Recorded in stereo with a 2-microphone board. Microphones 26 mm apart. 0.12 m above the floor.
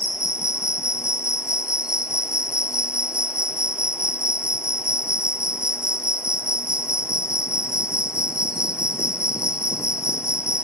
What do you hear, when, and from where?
0.0 s an insect: 40° right (ahead or behind), 1.1 m